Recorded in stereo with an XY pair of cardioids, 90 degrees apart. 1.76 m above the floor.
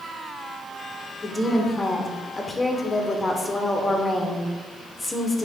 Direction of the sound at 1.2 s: 20° left.